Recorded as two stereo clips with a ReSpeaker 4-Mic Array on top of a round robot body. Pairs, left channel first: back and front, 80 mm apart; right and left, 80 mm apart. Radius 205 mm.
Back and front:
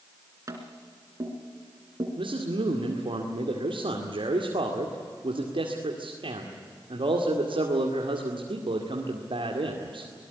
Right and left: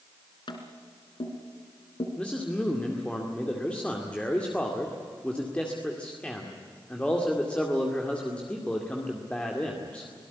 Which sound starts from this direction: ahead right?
Tapping, at 0.5 s.